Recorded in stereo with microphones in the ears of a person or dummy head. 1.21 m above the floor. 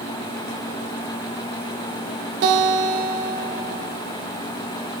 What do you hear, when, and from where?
2.4 s a guitar: 55° right (ahead or behind), 2.5 m